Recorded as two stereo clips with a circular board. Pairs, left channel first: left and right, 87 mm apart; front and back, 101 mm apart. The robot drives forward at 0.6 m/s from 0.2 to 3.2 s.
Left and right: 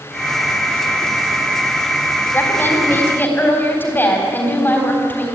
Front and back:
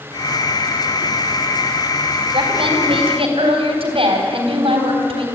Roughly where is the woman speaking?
Behind left.